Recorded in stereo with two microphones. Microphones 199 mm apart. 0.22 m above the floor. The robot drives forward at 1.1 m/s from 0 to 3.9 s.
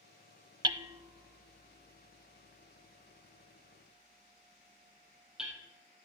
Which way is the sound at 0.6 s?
25° right (ahead or behind).